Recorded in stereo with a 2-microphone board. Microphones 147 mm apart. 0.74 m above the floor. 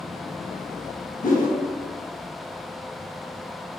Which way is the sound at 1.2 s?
65° left (ahead or behind).